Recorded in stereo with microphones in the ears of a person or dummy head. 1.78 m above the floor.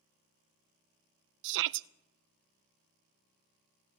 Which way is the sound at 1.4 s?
70° right (ahead or behind).